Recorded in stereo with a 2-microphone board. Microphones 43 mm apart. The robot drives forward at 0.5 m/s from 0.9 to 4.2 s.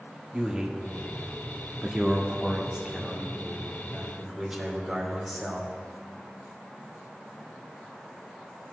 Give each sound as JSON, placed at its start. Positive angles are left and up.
{"t": 0.3, "sound": "a man speaking", "side_deg": -20, "distance_m": 1.2}